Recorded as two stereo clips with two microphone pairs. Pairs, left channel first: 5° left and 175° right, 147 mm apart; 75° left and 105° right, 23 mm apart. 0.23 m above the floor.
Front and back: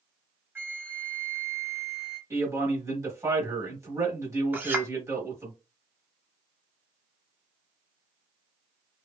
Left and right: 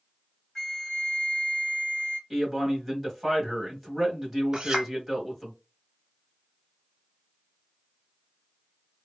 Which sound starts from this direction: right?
A clink, at 4.5 s.